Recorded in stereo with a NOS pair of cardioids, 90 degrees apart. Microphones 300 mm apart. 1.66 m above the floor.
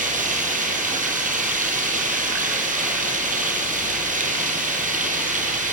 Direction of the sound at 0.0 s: 25° right.